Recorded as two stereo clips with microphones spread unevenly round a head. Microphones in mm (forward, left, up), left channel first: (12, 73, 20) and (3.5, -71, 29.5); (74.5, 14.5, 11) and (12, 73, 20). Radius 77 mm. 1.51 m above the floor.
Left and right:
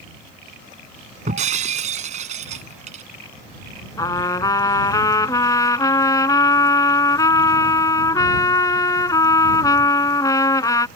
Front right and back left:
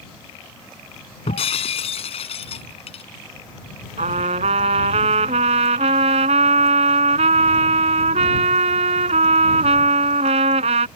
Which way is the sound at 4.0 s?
155° left.